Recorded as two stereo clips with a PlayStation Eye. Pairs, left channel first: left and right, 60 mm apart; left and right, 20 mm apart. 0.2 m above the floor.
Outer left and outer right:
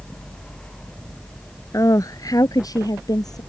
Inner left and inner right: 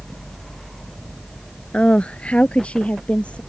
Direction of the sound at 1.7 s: 60° left (ahead or behind).